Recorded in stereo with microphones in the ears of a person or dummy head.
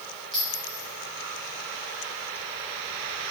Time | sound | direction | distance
0.3 | a clink | centre (ahead or behind) | 1.5 m